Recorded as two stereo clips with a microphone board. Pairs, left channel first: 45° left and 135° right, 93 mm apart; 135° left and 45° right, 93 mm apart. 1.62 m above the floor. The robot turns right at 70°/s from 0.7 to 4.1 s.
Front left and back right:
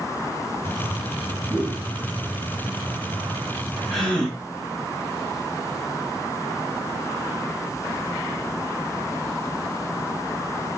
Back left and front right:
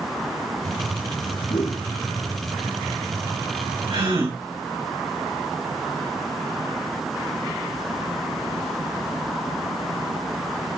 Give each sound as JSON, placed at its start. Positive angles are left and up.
{"t": 1.5, "sound": "a whoosh", "azimuth_deg": 140, "distance_m": 2.5}
{"t": 3.9, "sound": "a gasp", "azimuth_deg": -45, "distance_m": 3.5}